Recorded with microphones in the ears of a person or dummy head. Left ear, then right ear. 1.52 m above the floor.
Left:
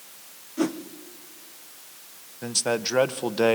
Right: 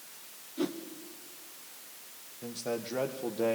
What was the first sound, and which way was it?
A whoosh, 30° left (ahead or behind).